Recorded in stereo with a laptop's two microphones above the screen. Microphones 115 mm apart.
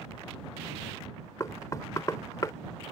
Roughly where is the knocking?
Left.